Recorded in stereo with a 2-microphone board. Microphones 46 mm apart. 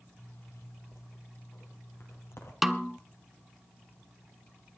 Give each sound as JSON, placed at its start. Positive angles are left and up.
{"t": 0.2, "sound": "a zipper", "side_deg": 70, "distance_m": 4.0}
{"t": 2.6, "sound": "a snare drum", "side_deg": -5, "distance_m": 0.8}